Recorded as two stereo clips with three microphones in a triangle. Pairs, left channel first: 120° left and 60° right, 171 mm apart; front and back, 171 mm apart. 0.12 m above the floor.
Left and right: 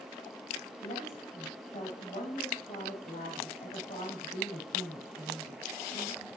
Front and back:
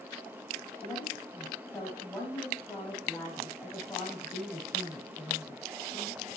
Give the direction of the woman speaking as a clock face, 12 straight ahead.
9 o'clock.